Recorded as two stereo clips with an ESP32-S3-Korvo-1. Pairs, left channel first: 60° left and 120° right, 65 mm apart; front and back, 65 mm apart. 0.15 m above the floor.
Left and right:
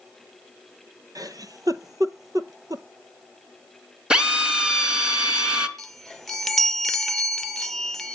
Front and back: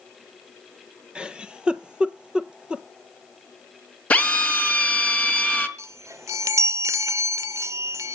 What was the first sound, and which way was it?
A giggle, 105° right.